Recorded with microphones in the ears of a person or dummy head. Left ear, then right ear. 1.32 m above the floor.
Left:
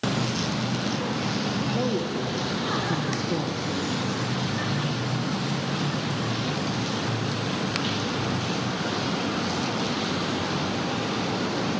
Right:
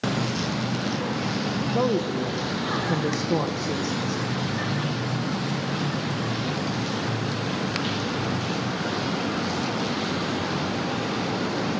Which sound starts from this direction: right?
A man speaking, at 1.7 s.